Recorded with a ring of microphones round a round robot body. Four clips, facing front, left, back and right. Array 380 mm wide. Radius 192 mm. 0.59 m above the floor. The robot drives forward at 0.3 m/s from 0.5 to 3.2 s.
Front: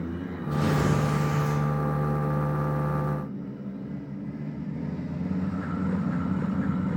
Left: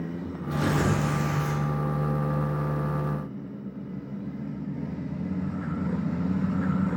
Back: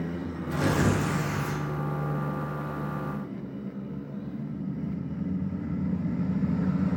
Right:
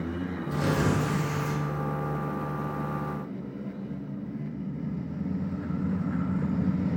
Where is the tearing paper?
150° left, 0.6 m; by 1.6 s 165° left, 0.8 m.